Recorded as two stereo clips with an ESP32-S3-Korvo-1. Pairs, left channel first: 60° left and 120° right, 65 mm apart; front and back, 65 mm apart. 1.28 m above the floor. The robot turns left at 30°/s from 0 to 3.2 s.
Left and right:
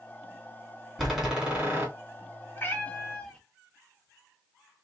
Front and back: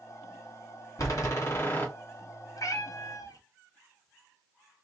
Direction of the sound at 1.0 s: 30° right.